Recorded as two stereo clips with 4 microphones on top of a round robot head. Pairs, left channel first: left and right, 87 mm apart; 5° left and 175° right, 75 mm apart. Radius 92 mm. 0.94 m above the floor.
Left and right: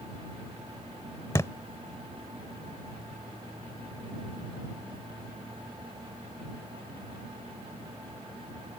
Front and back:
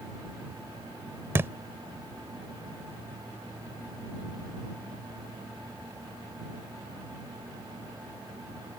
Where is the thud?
150° left.